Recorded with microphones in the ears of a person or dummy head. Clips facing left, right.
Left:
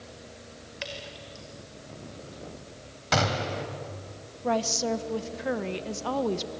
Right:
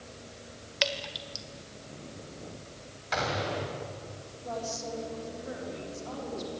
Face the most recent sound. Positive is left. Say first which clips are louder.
# left 9 dB
turn(degrees=80)